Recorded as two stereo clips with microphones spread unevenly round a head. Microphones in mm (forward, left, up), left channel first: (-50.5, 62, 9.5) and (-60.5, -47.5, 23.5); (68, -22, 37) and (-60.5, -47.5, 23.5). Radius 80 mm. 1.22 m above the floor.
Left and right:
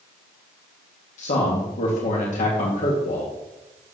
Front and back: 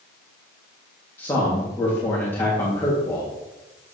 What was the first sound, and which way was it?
A man speaking, 90° left.